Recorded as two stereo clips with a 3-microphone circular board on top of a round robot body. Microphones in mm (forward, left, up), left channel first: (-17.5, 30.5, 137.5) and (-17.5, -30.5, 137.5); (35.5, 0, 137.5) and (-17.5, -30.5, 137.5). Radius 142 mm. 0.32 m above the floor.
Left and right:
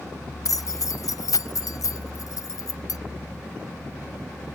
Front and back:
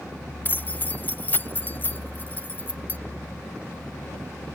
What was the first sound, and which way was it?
Keys jangling, 85° left.